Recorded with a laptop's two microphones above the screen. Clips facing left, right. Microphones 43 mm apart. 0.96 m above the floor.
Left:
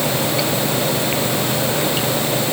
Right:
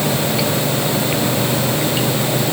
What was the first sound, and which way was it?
Only background noise.